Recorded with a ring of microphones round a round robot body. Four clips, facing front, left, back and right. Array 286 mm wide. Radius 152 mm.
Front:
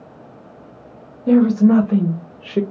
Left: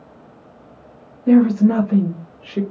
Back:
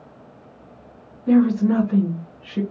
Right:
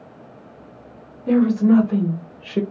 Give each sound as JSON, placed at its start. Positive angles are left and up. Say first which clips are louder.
{"t": 1.3, "sound": "a woman speaking", "louder": "left 2 dB, front 4 dB", "azimuth_deg": 30, "distance_m": 1.2}